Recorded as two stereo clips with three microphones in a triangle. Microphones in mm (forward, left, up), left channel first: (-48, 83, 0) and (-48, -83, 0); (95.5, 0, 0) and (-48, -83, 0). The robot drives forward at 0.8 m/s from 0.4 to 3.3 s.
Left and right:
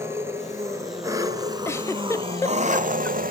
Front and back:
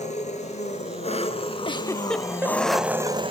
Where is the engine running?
15° right, 2.5 m; by 3.3 s 100° right, 0.7 m.